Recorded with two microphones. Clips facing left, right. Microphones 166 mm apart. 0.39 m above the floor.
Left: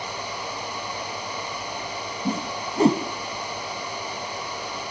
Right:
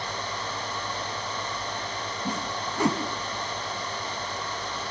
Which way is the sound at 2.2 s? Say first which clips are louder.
Left 5 dB; 30° left (ahead or behind).